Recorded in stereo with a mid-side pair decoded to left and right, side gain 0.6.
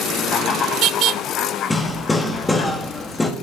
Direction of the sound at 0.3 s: 45° left.